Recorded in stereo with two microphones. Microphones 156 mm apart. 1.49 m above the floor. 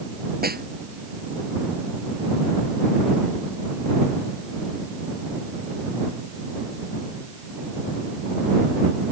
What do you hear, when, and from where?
0.4 s a snare drum: 80° right